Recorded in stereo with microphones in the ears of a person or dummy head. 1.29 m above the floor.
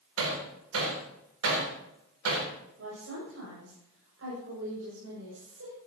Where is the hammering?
90° right, 3.5 m.